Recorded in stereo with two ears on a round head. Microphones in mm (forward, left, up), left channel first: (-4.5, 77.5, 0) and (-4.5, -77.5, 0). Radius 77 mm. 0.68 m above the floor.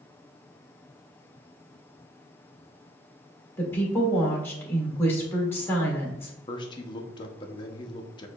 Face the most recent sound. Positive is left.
turn(degrees=25)  # may be behind; listen again after turning